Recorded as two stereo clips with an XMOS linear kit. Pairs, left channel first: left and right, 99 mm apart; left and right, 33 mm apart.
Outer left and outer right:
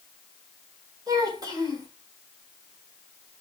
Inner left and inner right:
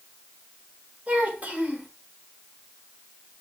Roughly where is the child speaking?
Right.